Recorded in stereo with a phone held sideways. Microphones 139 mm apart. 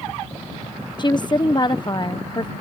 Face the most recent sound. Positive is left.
turn(degrees=35)  # may be behind; listen again after turning